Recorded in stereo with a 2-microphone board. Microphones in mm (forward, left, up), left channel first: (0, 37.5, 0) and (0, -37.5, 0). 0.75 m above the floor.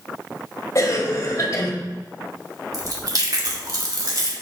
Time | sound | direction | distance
0.8 | a cough | 40° left (ahead or behind) | 1.8 m
2.7 | chewing | 50° right (ahead or behind) | 1.4 m